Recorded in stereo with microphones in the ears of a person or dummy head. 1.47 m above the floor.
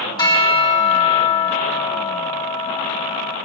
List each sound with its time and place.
0.2 s a bell: 15° left (ahead or behind), 1.3 m